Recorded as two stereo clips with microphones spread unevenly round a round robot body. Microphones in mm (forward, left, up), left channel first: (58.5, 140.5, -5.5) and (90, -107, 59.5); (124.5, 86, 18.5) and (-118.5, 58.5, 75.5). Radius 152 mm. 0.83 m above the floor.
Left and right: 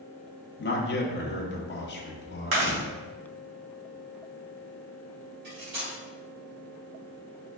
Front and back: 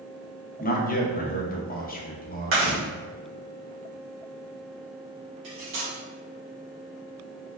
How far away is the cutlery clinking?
About 1.3 m.